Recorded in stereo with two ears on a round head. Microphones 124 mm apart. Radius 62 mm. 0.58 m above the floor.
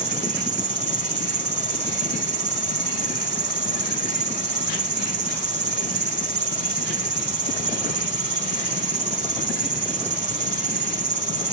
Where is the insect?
50° right (ahead or behind), 0.8 m.